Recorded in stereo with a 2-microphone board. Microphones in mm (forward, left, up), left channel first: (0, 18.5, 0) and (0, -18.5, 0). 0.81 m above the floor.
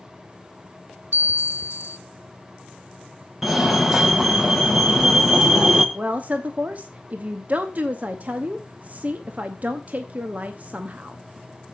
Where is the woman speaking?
45° right (ahead or behind), 0.8 m.